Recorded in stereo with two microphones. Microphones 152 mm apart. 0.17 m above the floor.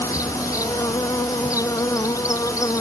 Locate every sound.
0.0 s an insect: 20° left (ahead or behind)